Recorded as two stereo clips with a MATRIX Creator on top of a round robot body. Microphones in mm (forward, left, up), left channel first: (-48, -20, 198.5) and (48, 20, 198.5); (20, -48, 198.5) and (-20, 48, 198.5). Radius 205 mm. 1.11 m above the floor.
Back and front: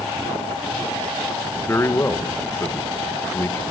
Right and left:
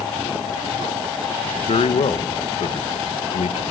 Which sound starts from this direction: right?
A man speaking, at 1.7 s.